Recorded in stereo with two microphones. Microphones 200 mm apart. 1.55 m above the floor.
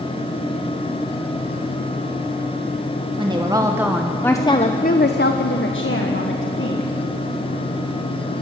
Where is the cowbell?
No cowbell in this recording.